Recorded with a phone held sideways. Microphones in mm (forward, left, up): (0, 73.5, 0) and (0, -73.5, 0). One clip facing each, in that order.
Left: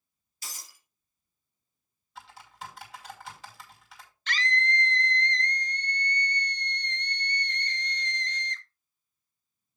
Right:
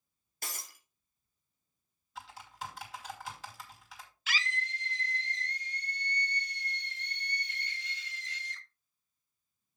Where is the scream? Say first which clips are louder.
Left 8 dB; 5° right (ahead or behind), 1.0 m.